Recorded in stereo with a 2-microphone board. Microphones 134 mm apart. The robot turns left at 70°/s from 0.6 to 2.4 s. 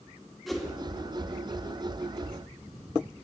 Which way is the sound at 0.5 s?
Centre (ahead or behind).